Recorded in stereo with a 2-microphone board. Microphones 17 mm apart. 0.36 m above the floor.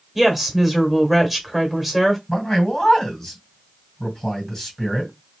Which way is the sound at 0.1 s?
5° right (ahead or behind).